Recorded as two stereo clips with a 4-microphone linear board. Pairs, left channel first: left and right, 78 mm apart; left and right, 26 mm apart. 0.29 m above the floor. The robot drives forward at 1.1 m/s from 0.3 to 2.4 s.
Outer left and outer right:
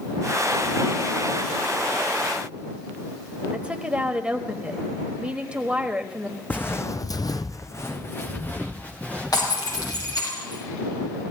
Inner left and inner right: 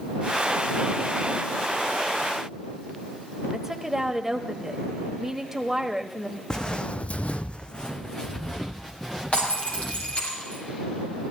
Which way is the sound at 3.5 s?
15° right (ahead or behind).